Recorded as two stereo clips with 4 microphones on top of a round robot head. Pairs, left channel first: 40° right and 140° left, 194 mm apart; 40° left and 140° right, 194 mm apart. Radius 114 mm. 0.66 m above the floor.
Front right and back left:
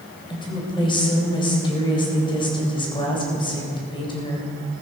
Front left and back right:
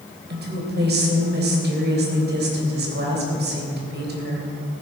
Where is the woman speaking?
105° right, 3.5 m.